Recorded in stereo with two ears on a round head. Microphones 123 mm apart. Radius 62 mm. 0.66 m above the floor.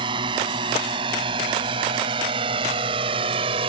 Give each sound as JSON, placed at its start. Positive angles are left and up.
{"t": 0.0, "sound": "a drone", "side_deg": -40}